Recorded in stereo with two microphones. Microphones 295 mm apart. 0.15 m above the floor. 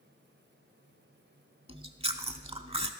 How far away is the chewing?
About 0.5 m.